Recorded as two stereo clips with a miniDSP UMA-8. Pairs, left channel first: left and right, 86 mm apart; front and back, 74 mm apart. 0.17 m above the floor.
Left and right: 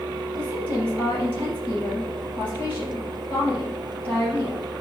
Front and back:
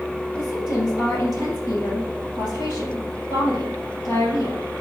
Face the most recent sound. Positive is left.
turn(degrees=20)